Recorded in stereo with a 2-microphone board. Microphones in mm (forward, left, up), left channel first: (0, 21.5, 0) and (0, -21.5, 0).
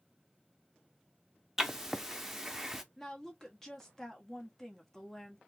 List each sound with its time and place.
1.6 s writing: 10° right (ahead or behind), 0.6 m
3.0 s a woman speaking: 10° left (ahead or behind), 1.1 m